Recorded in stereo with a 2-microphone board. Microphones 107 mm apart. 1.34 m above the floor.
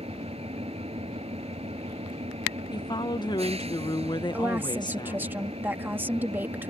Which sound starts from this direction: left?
A woman speaking, at 2.7 s.